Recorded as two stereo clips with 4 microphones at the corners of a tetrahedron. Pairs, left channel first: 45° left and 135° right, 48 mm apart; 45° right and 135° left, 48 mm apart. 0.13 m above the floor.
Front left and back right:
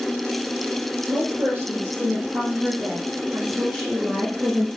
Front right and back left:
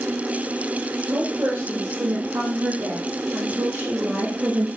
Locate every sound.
1.1 s a woman speaking: 175° left, 5 m; by 4.7 s 140° left, 4.5 m